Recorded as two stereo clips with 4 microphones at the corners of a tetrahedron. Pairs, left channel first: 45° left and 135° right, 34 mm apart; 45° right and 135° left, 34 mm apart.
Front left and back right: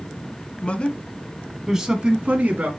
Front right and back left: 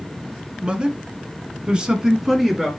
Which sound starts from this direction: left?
A man speaking, at 0.6 s.